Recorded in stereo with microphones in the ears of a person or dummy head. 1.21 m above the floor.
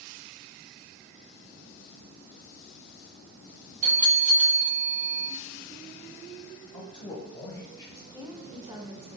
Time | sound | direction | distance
3.8 | a bell | 40° right (ahead or behind) | 1.1 m
6.7 | a man speaking | 20° left (ahead or behind) | 0.9 m
8.1 | a woman speaking | 20° right (ahead or behind) | 0.6 m